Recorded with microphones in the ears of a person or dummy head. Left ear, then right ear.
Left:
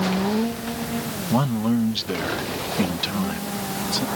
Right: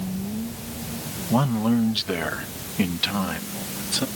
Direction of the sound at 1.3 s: 5° right (ahead or behind).